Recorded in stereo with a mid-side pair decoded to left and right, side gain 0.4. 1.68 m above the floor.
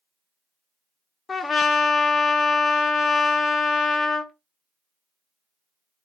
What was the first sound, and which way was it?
A trumpet, 45° left.